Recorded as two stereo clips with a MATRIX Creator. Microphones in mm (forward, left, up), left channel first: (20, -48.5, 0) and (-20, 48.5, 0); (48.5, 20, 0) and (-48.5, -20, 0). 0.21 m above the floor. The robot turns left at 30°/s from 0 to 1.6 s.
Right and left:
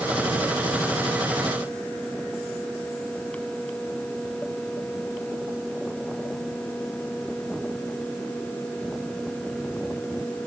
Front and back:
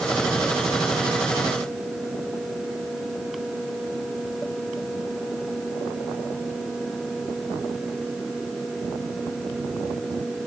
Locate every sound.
Only background noise.